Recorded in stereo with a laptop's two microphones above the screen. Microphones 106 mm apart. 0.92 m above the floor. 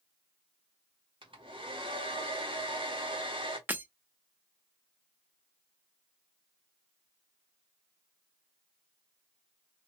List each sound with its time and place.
1.2 s a hair dryer: 50° right (ahead or behind), 1.2 m
3.7 s breaking glass: 15° right (ahead or behind), 0.6 m